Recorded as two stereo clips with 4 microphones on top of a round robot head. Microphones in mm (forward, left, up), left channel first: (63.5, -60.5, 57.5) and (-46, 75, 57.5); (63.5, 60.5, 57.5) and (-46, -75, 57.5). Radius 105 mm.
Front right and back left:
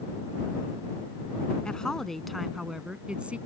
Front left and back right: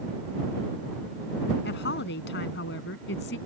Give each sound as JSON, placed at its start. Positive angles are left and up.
{"t": 1.6, "sound": "a woman speaking", "azimuth_deg": 35}